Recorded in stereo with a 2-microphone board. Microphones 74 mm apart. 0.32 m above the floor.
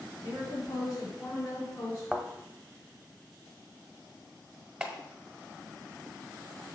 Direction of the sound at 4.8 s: 10° right (ahead or behind).